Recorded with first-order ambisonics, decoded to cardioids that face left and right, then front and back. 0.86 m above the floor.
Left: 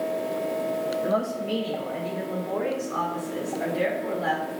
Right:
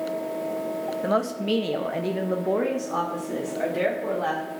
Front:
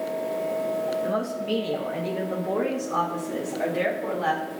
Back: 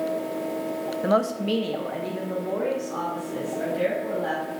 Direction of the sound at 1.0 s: 150° right.